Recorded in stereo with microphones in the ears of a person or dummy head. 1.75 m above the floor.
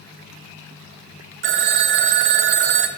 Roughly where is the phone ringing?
Right.